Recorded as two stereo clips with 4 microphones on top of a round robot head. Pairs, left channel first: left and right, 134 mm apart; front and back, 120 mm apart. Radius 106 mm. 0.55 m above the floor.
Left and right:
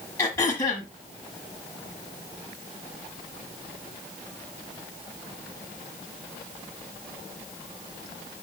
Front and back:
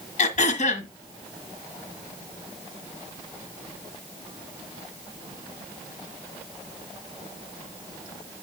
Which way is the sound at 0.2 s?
15° left.